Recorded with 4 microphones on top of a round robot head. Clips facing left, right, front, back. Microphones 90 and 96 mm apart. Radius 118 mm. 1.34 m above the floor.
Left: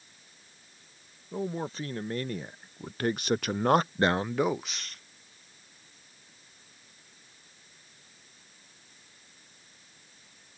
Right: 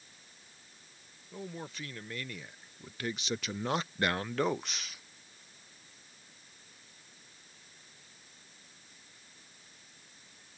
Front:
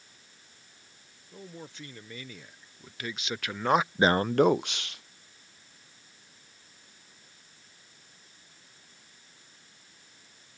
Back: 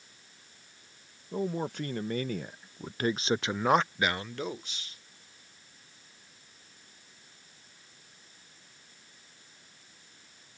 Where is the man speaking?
145° left; by 5.0 s 5° right.